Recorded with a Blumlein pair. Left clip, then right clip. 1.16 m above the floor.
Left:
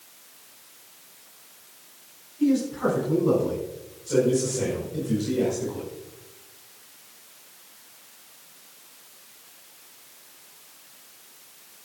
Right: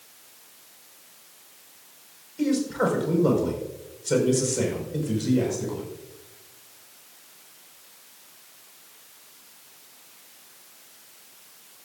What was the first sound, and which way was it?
A man speaking, 40° right.